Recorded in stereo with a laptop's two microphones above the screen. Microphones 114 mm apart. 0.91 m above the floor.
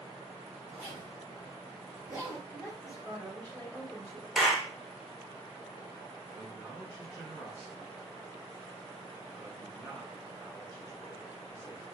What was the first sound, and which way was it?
A zipper, 30° right (ahead or behind).